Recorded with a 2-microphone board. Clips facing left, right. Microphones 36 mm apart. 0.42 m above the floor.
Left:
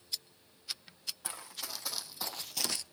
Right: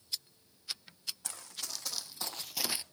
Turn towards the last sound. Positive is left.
turn(degrees=-25)  # may be behind; listen again after turning